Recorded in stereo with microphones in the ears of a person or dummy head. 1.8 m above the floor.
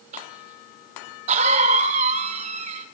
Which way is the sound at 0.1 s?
40° right (ahead or behind).